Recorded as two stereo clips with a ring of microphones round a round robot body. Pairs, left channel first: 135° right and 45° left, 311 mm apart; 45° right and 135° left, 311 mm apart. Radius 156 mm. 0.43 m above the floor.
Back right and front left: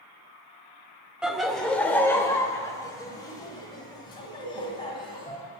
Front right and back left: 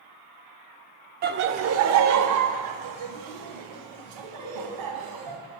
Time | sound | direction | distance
1.2 | laughter | 130° left | 0.8 m